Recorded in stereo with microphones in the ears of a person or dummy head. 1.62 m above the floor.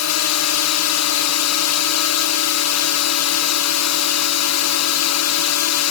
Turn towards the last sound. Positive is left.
turn(degrees=75)  # may be behind; listen again after turning